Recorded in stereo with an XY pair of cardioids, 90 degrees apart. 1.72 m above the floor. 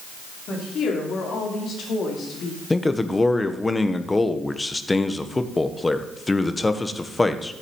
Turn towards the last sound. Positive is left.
turn(degrees=20)